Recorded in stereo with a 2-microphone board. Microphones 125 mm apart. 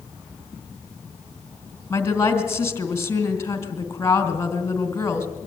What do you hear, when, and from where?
1.9 s a woman speaking: 20° left (ahead or behind), 2.5 m